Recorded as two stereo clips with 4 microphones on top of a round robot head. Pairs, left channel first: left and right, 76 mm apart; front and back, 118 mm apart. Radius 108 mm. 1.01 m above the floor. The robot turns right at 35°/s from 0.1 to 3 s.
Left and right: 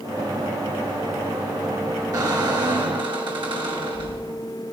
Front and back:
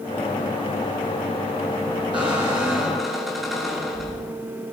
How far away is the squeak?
About 1.7 m.